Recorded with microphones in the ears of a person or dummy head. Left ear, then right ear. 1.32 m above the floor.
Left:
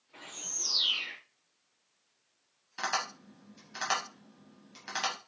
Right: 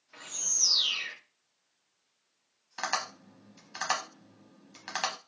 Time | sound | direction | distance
0.1 | a bird | 75° right (ahead or behind) | 1.5 m
2.8 | tapping | 25° right (ahead or behind) | 0.9 m